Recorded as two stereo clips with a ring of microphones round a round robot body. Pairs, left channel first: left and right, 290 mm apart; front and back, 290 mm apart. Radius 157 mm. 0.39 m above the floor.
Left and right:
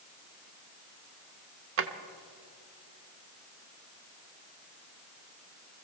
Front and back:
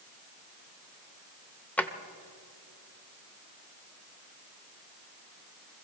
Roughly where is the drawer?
Right.